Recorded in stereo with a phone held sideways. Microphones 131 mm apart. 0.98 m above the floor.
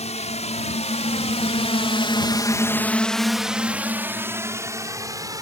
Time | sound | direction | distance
0.0 | a drone | 55° left (ahead or behind) | ?